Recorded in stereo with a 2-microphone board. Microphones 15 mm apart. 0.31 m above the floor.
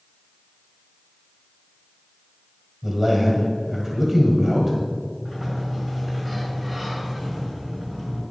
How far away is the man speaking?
About 1.7 m.